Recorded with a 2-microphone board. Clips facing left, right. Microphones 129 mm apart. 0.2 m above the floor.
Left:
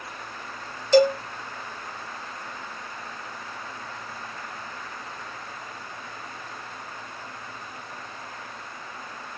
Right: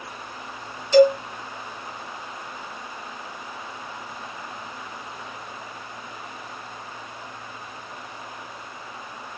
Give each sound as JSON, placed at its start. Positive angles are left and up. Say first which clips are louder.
{"t": 0.9, "sound": "a cowbell", "louder": "right 3 dB", "side_deg": 40, "distance_m": 0.7}